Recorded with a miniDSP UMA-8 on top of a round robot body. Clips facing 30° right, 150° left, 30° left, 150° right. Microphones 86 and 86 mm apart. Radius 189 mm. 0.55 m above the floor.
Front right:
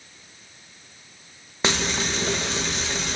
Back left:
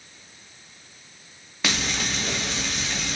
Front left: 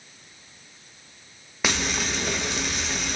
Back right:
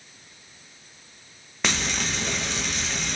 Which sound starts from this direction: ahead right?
Frying, at 1.6 s.